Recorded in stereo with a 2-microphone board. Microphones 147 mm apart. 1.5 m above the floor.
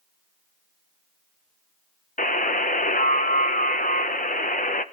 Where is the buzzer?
65° left (ahead or behind), 1.0 m.